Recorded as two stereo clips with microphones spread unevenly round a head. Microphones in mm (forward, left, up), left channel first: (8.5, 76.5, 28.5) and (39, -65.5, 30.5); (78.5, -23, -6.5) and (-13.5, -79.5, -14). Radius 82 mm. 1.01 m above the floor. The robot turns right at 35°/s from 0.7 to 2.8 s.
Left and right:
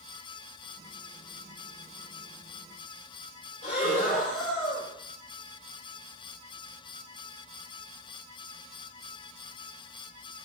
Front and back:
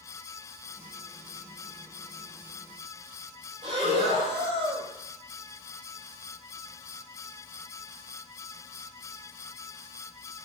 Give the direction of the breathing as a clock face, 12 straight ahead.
7 o'clock.